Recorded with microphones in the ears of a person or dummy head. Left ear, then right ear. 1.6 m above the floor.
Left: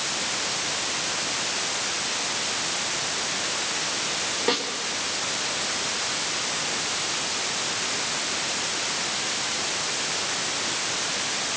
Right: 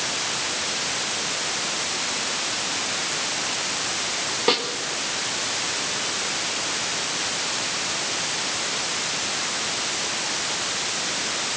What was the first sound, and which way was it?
A snare drum, 25° right (ahead or behind).